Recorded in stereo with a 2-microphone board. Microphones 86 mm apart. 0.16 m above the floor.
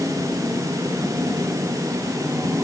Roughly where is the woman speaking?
No woman speaking in this recording.